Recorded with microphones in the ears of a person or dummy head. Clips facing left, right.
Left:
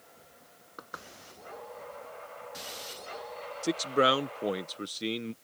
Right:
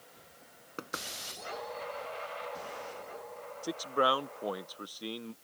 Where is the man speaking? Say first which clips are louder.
Left 4 dB; 25° left (ahead or behind).